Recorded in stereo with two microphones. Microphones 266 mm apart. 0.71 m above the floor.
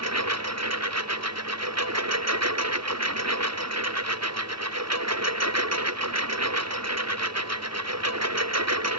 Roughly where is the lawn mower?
Right.